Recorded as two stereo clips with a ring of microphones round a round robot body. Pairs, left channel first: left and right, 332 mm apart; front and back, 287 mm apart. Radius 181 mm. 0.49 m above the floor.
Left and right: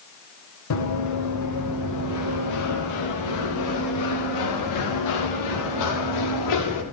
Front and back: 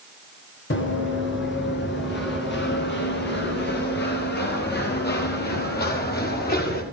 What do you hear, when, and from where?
0.7 s running footsteps: 50° left, 7.5 m; by 6.8 s 55° left, 11.5 m